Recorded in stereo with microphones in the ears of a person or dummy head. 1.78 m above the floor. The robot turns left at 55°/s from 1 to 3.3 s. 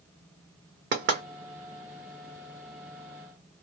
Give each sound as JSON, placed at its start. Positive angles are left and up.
{"t": 0.9, "sound": "knocking", "side_deg": -50, "distance_m": 1.1}